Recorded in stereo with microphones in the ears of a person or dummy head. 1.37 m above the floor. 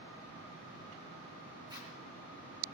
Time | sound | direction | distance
1.7 | a zipper | 20° right (ahead or behind) | 3.5 m